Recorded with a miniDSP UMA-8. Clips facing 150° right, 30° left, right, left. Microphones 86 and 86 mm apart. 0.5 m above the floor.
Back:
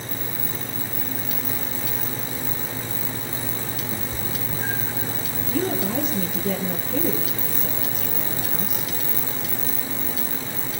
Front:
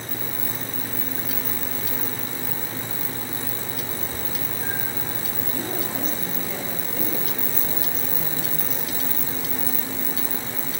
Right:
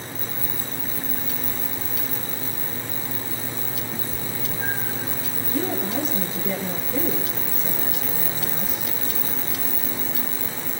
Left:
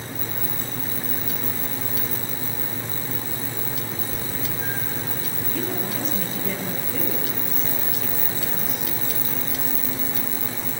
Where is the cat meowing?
165° right, 4.5 m; by 5.1 s 155° right, 4 m.